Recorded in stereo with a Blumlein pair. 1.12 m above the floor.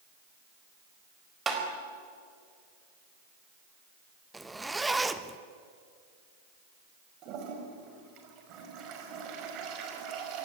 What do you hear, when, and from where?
1.5 s tapping: 15° right, 4.5 m
4.3 s a zipper: 5° right, 1.2 m
7.2 s a toilet flushing: 35° right, 5 m